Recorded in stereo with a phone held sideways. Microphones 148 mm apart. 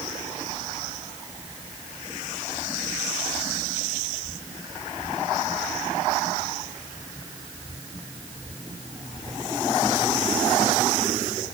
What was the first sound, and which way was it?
Only background noise.